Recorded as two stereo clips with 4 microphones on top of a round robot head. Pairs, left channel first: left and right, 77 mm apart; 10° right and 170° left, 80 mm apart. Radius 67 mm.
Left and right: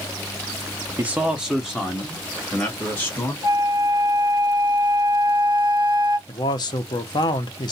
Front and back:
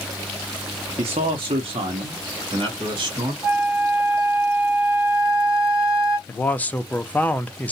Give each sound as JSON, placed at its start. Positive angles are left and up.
{"t": 1.0, "sound": "a man speaking", "azimuth_deg": -155, "distance_m": 0.5}
{"t": 3.4, "sound": "a flute", "azimuth_deg": 95, "distance_m": 1.3}
{"t": 6.3, "sound": "a man speaking", "azimuth_deg": 65, "distance_m": 0.6}